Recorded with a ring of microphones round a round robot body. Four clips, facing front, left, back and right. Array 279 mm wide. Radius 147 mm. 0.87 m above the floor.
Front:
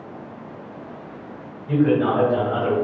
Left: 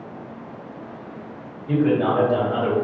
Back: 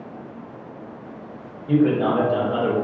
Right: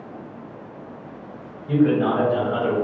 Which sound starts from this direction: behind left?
A man speaking, at 1.7 s.